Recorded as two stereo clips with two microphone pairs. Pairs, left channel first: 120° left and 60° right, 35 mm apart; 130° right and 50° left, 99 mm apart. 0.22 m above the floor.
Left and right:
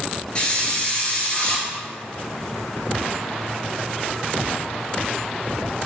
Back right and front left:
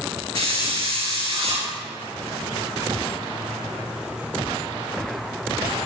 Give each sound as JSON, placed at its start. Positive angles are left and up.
{"t": 0.3, "sound": "a hiss", "azimuth_deg": 55, "distance_m": 3.0}